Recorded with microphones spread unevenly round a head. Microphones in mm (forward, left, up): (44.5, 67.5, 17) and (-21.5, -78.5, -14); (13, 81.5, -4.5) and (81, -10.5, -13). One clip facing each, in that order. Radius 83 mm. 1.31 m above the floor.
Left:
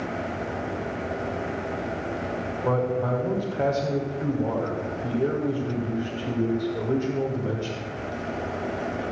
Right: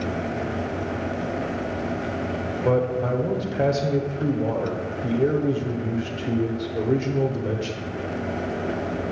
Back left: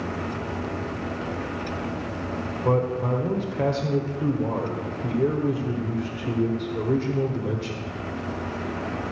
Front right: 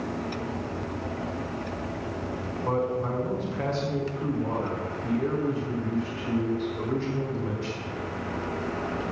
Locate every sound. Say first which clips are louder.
2.6 s a man speaking: right 3 dB, back left 4 dB; 175° right, 1.1 m